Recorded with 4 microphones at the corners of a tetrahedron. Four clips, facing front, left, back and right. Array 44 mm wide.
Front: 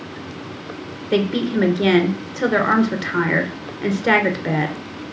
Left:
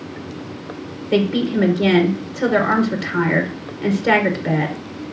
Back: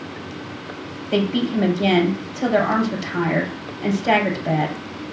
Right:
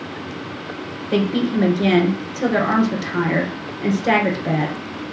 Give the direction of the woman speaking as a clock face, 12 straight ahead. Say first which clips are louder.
Left 1 dB, front 1 dB; 11 o'clock.